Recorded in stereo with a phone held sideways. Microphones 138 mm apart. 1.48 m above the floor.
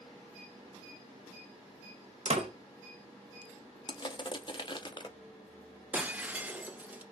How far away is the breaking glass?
About 0.6 m.